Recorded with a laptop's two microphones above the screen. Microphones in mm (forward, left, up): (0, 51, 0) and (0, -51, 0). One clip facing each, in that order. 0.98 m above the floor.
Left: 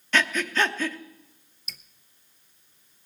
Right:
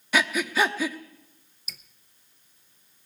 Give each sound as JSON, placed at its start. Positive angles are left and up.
{"t": 0.1, "sound": "breathing", "side_deg": -10, "distance_m": 0.9}
{"t": 1.7, "sound": "dripping", "side_deg": -5, "distance_m": 0.7}